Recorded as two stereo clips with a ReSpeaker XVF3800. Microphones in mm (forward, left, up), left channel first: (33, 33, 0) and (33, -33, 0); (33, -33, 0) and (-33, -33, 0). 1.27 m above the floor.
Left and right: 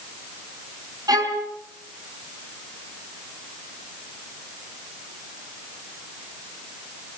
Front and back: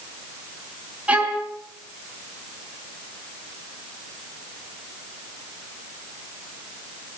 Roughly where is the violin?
Right.